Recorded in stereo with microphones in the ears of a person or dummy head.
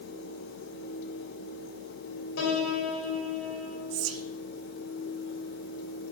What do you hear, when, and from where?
2.4 s a piano: 75° left (ahead or behind), 3 m
3.9 s whispering: 75° right (ahead or behind), 1.1 m